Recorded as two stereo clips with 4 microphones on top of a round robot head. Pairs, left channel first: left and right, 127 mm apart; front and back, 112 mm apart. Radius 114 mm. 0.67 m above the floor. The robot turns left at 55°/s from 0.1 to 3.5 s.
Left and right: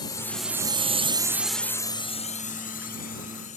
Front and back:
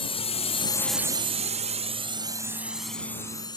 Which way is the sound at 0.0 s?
30° left.